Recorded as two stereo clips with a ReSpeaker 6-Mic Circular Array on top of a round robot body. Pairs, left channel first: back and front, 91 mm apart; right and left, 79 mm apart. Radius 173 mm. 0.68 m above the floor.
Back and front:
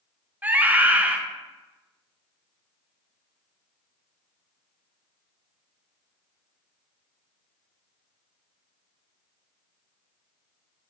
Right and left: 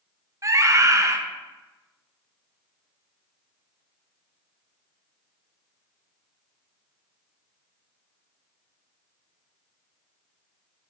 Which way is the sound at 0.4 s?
65° left.